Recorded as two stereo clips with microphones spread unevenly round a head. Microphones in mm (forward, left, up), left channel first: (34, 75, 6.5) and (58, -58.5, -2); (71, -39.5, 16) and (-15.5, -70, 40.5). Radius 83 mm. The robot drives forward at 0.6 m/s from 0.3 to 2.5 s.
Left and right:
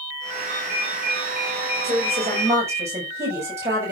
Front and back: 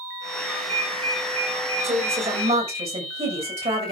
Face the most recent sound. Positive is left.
turn(degrees=-155)